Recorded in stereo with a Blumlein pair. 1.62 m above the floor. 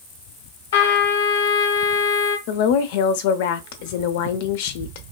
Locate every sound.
0.7 s a trumpet: 55° left, 1.1 m
2.5 s a woman speaking: 50° left, 0.6 m